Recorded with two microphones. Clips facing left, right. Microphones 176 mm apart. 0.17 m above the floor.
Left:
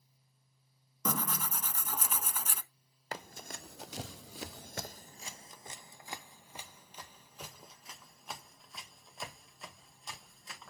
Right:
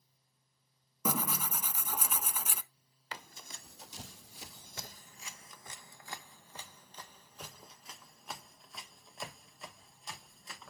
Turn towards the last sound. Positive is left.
turn(degrees=0)  # may be behind; listen again after turning